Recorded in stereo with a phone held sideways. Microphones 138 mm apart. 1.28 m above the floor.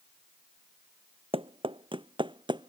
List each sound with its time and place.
1.3 s running footsteps: 40° right (ahead or behind); by 2.7 s 35° right (ahead or behind)